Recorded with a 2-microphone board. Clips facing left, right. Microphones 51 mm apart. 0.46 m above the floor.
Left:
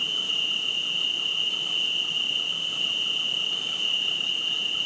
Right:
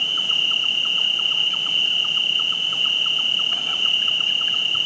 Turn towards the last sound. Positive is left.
turn(degrees=-60)  # may be behind; listen again after turning